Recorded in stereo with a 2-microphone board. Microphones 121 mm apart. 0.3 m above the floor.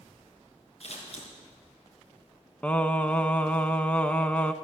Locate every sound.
0.8 s scissors: 60° left (ahead or behind), 4.5 m
2.6 s singing: 10° left (ahead or behind), 0.7 m